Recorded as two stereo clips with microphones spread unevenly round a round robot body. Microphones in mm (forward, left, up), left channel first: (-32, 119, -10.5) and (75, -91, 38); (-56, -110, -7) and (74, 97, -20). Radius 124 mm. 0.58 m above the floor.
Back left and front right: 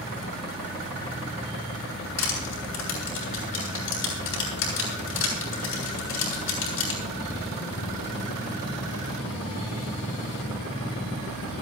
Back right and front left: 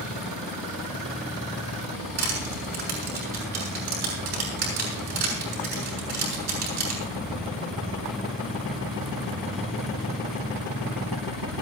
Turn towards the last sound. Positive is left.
turn(degrees=80)